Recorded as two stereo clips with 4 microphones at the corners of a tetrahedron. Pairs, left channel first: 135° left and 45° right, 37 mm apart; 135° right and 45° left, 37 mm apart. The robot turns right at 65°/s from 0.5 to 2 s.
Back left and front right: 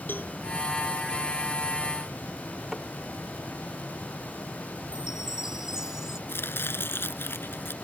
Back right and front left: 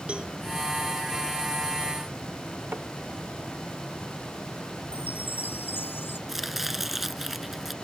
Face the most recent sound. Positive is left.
turn(degrees=130)